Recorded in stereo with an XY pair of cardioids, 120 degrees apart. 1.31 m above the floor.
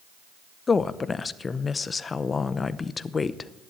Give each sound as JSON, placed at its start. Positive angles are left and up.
{"t": 0.7, "sound": "a woman speaking", "azimuth_deg": 25, "distance_m": 0.7}